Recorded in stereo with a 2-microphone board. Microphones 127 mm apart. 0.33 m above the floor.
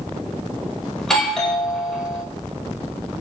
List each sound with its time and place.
1.0 s a doorbell: 5° left (ahead or behind), 1.3 m